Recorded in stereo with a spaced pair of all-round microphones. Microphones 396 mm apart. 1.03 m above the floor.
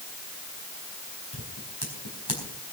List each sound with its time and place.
1.3 s scissors: 75° left (ahead or behind), 4 m